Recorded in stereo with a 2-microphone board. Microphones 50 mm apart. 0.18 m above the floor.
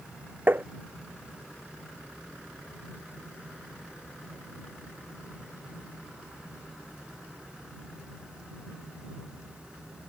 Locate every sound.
0.5 s tapping: 40° right (ahead or behind)